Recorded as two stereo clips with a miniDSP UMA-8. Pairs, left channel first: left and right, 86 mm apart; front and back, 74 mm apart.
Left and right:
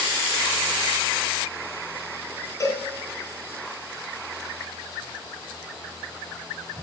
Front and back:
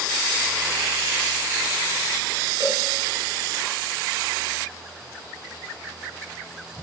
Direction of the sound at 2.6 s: 145° left.